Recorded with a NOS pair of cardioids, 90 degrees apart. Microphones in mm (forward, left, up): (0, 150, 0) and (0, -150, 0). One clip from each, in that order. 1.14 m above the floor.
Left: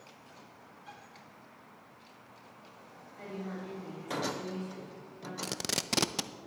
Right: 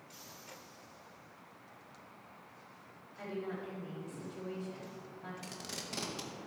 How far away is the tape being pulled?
About 0.6 m.